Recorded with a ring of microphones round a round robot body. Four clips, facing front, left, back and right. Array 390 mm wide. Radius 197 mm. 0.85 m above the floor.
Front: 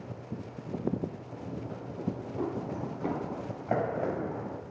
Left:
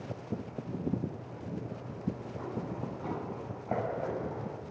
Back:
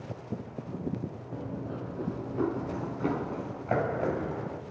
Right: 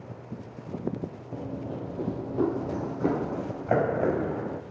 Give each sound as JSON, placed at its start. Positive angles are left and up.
{"t": 1.3, "sound": "running footsteps", "azimuth_deg": -120, "distance_m": 1.6}